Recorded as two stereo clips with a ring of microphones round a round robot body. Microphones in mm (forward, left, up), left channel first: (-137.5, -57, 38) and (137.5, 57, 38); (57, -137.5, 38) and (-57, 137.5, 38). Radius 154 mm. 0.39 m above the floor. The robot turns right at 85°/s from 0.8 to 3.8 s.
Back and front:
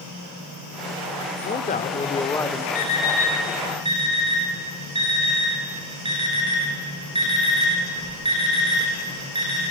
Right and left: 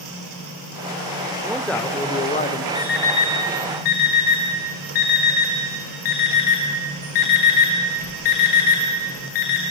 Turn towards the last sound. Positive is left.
turn(degrees=-50)